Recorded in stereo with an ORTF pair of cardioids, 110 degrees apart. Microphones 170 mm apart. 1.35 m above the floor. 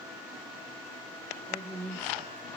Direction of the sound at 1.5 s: 25° right.